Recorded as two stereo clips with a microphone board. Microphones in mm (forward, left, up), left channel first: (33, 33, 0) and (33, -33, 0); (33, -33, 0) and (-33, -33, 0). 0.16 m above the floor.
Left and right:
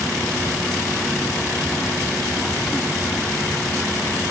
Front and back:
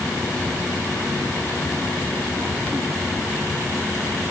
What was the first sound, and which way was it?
Only background noise.